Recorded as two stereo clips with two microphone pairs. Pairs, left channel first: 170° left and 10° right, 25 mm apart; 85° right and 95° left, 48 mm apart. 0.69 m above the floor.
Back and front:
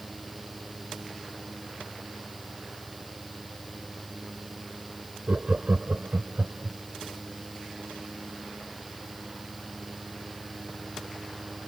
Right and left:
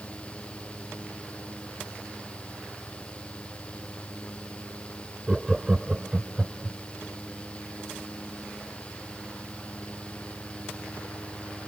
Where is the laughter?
10° left; by 6.8 s 20° left.